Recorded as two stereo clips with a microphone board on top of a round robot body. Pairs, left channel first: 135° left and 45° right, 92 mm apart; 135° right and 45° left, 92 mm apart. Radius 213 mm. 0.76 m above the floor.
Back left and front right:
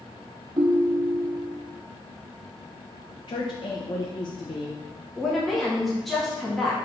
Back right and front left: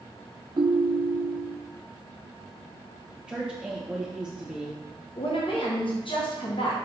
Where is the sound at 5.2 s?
135° right, 1.9 m.